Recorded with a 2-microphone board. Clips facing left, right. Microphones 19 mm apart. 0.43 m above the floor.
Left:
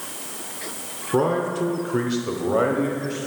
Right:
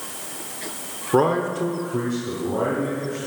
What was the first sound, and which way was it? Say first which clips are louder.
A man speaking: right 2 dB; 30° right (ahead or behind).